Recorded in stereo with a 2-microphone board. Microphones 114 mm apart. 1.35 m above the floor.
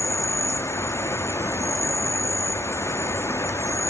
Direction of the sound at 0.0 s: 25° left (ahead or behind).